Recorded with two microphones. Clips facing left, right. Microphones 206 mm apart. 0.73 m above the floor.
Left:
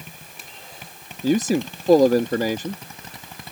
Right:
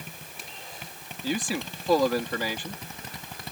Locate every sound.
1.2 s a man speaking: 45° left (ahead or behind)